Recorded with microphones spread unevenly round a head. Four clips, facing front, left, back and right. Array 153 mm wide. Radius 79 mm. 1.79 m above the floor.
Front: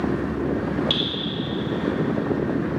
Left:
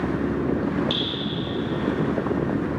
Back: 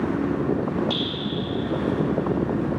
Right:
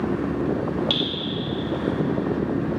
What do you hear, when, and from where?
0.9 s dripping: 65° right, 2.0 m